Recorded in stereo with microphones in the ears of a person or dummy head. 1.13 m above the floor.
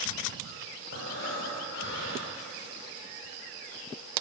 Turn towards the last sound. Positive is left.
turn(degrees=75)  # may be behind; listen again after turning